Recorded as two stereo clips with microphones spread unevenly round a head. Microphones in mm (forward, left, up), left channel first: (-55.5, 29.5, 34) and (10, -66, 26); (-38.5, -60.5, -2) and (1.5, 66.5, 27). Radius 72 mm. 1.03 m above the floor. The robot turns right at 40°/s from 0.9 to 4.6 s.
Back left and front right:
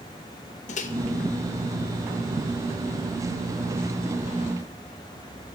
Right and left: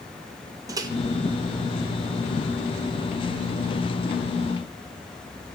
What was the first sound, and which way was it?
A microwave, 140° left.